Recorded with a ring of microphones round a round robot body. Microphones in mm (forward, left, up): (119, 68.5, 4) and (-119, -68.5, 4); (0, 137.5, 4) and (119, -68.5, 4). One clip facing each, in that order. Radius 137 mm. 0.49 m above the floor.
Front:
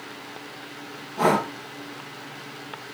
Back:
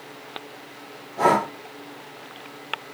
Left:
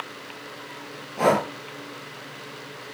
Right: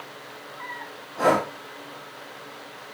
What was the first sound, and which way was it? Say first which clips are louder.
Breathing: even, left 1 dB; 100° left.